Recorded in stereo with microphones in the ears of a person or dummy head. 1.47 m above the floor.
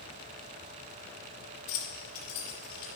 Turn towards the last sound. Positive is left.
turn(degrees=25)  # may be behind; listen again after turning